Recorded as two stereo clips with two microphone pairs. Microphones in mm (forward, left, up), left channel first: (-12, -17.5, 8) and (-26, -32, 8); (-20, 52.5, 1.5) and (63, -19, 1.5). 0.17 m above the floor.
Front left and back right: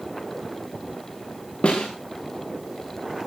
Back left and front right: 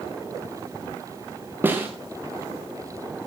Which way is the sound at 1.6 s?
30° left.